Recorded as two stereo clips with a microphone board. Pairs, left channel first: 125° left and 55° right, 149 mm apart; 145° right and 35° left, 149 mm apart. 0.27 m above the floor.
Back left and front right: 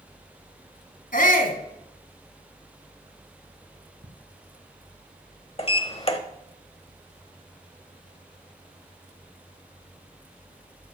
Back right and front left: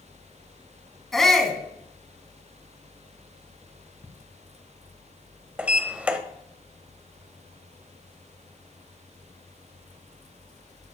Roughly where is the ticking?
Right.